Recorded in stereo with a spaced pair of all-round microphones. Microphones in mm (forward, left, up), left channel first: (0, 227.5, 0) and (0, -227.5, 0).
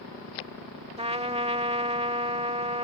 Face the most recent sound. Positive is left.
turn(degrees=-15)  # may be behind; listen again after turning